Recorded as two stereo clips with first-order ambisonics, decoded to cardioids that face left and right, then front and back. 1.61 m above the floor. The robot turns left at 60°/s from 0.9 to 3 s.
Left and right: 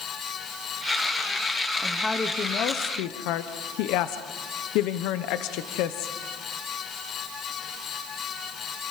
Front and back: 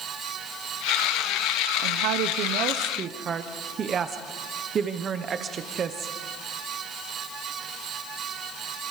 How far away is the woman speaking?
About 0.9 m.